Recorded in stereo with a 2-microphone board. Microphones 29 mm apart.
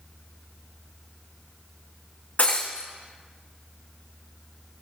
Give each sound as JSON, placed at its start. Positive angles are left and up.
{"t": 2.4, "sound": "breaking glass", "side_deg": 60, "distance_m": 2.0}